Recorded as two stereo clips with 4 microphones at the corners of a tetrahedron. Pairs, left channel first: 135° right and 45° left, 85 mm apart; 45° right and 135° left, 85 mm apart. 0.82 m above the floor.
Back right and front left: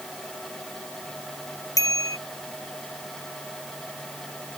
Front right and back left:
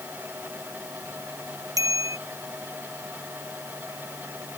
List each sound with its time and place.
1.8 s a bicycle bell: straight behind